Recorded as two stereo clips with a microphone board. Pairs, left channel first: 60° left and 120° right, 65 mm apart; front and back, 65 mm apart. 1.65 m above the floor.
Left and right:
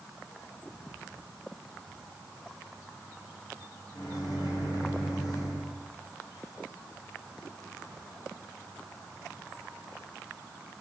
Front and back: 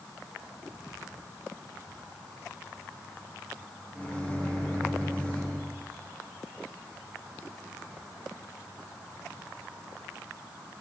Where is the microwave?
65° left, 7.5 m.